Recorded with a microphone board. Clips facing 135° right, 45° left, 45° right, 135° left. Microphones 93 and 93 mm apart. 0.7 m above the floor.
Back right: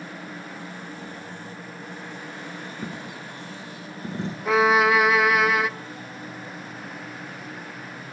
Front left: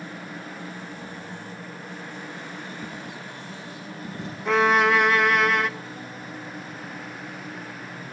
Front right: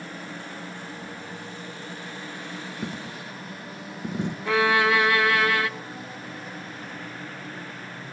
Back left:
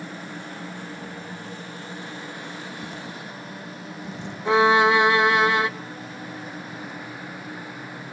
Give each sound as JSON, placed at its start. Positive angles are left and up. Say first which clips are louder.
{"t": 2.8, "sound": "a dropped coin", "louder": "back right 1 dB, front right 1 dB", "azimuth_deg": -80, "distance_m": 2.0}
{"t": 4.5, "sound": "a violin", "louder": "back right 1 dB, back left 5 dB", "azimuth_deg": 145, "distance_m": 0.9}